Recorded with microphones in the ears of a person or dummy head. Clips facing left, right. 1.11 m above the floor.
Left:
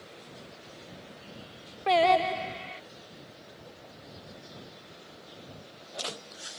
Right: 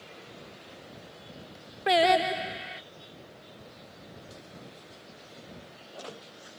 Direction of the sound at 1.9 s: 10° right (ahead or behind).